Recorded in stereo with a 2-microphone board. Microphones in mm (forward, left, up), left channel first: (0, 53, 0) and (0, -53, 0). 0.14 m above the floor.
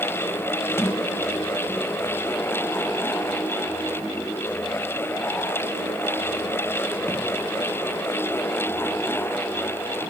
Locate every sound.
0.8 s a sliding door: 20° left (ahead or behind), 1.4 m